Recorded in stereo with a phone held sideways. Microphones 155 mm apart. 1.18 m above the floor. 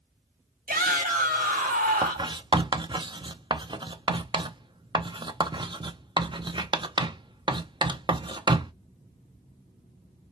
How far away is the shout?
About 2.5 m.